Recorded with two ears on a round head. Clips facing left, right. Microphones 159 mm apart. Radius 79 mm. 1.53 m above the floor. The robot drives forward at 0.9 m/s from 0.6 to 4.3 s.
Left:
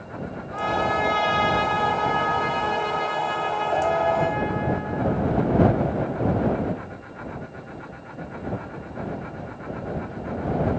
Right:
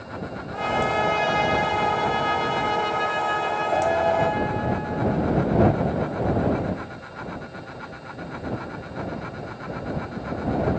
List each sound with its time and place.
0.5 s a trumpet: 20° right (ahead or behind), 7 m; by 5.2 s 35° right (ahead or behind), 4 m